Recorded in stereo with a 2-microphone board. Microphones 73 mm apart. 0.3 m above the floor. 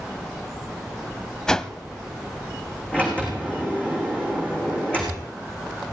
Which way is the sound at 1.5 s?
10° left (ahead or behind).